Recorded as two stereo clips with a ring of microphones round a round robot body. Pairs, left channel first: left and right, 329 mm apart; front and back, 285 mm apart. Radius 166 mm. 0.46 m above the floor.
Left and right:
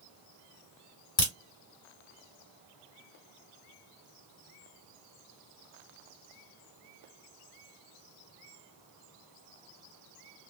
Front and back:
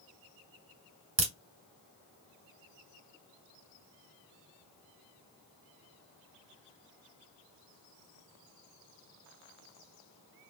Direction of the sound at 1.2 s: 140° left.